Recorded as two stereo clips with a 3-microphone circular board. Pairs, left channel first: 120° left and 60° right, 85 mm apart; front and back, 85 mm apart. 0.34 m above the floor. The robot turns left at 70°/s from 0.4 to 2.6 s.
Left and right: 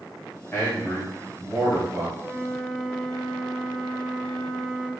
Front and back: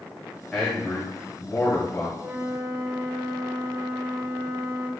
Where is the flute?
135° right, 0.9 m; by 4.9 s 165° right, 0.9 m.